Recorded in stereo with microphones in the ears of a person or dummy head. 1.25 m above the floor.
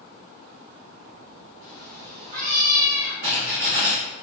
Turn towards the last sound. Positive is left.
turn(degrees=-45)  # may be behind; listen again after turning